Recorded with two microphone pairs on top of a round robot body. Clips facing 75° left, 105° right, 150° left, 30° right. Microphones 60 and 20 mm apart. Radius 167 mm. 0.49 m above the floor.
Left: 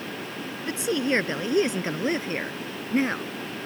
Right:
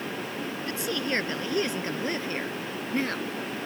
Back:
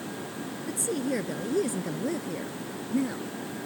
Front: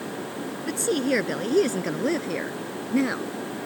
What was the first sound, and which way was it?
A woman speaking, 10° left.